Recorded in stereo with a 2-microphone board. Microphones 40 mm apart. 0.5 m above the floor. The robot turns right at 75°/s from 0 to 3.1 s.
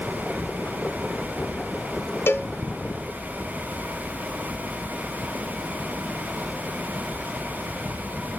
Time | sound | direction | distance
2.3 | a cowbell | 70° left (ahead or behind) | 0.5 m